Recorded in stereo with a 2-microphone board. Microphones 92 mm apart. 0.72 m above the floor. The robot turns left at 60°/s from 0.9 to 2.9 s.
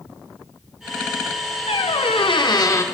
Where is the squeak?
100° left, 0.7 m; by 2.8 s 30° left, 0.7 m.